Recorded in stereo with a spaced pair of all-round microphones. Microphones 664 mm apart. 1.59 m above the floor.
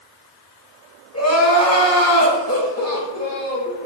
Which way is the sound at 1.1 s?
25° left (ahead or behind).